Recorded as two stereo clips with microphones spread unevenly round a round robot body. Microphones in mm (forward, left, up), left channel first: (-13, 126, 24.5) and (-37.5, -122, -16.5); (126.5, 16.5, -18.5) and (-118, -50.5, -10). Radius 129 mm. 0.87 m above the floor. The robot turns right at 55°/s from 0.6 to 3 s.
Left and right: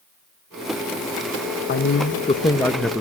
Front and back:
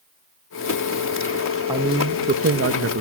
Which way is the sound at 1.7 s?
120° left.